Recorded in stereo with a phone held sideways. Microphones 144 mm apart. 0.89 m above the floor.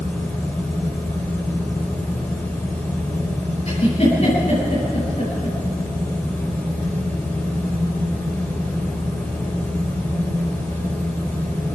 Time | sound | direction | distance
0.0 | a fan | 15° left (ahead or behind) | 6 m
3.7 | a giggle | 50° left (ahead or behind) | 9.5 m